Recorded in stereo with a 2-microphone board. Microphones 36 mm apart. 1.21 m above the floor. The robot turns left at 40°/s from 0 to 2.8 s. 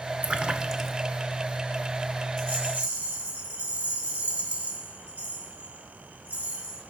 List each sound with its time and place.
0.2 s a splash: 35° right (ahead or behind), 0.7 m; by 1.0 s 5° right (ahead or behind), 0.7 m
2.4 s a rattle: 80° right, 3.5 m; by 6.8 s 70° right (ahead or behind), 3.5 m